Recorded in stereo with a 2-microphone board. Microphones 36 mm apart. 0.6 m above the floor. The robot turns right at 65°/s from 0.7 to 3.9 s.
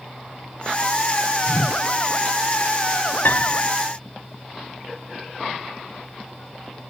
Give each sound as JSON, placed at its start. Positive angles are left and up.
{"t": 1.5, "sound": "a whoosh", "side_deg": 85}
{"t": 3.2, "sound": "a piano", "side_deg": 65}